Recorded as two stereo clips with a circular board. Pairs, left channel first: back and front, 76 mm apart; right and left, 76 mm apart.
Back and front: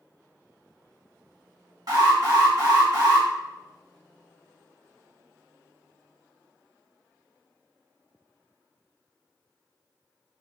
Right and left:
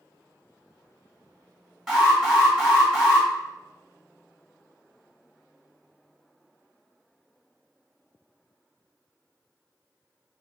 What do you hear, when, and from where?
1.9 s an alarm: 5° left, 1.2 m